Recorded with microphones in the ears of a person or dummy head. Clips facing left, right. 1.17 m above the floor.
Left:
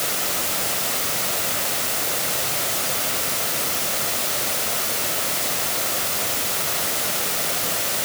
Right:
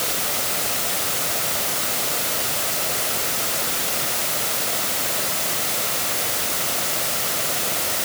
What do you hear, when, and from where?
Only background noise.